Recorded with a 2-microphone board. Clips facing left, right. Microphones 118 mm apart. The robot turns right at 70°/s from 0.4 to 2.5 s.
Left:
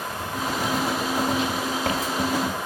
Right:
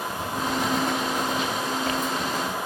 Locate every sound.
0.1 s writing: 25° right (ahead or behind), 1.3 m; by 2.6 s 55° left (ahead or behind), 1.3 m